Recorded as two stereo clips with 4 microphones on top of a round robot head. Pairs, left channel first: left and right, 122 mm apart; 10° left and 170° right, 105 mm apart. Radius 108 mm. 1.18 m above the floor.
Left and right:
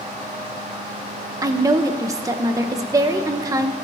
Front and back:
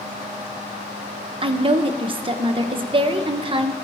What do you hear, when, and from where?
1.4 s a woman speaking: 150° right, 0.9 m